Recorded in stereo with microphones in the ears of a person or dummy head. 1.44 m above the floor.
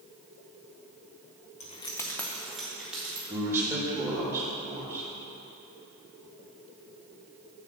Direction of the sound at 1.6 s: 35° left (ahead or behind).